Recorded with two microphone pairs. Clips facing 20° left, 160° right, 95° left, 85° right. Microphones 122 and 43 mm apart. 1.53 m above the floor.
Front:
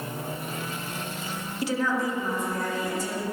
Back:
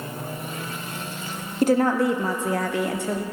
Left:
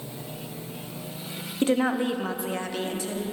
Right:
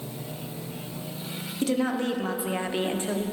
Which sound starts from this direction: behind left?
A woman speaking, at 1.6 s.